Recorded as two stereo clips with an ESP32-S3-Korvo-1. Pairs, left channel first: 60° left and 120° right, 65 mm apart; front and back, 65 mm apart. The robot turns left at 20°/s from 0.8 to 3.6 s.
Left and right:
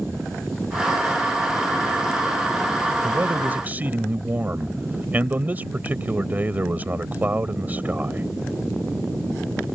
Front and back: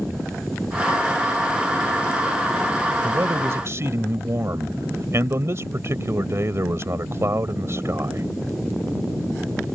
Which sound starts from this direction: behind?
A man speaking, at 3.0 s.